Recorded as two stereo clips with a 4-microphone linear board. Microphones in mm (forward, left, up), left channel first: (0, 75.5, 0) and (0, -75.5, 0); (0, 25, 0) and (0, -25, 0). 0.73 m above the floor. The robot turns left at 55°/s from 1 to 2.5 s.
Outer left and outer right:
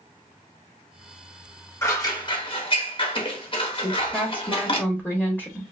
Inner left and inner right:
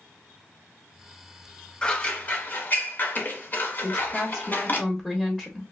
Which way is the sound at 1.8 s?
20° left (ahead or behind).